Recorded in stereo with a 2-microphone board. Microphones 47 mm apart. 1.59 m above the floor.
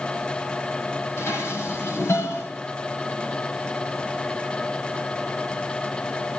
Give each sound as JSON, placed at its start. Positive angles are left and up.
{"t": 1.2, "sound": "dishes clattering", "side_deg": 70, "distance_m": 8.0}